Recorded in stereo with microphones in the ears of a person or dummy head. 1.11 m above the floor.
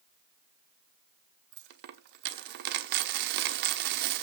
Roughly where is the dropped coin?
Right.